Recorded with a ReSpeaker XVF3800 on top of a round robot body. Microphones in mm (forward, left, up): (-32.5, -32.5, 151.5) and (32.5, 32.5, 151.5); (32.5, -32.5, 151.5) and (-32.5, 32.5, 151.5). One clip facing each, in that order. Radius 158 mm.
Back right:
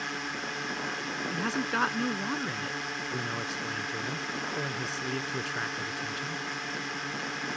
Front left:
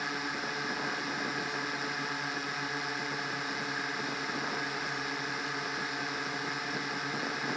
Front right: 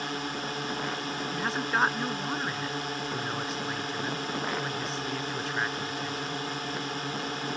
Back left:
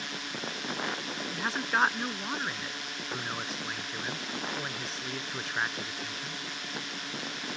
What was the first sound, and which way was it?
A drone, 40° right.